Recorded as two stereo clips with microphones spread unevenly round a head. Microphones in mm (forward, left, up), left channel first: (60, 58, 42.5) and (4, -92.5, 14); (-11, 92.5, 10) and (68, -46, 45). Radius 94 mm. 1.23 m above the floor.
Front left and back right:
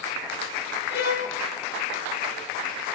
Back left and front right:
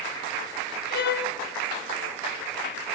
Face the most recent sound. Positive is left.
turn(degrees=105)